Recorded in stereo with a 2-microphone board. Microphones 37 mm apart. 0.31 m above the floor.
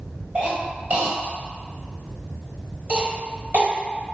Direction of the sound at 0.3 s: 40° right (ahead or behind).